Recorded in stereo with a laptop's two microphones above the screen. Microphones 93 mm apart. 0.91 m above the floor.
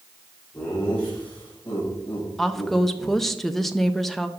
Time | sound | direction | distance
0.5 | laughter | 15° left (ahead or behind) | 4.5 m
2.4 | a woman speaking | 5° left (ahead or behind) | 0.6 m